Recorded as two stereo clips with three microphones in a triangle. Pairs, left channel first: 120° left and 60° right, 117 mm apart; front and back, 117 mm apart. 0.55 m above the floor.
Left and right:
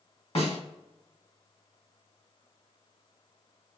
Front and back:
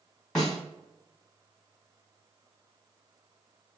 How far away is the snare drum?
About 2 m.